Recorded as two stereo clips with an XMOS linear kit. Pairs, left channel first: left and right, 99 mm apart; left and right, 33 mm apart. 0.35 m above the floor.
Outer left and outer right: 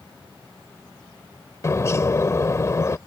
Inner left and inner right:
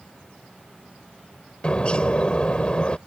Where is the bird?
35° left (ahead or behind).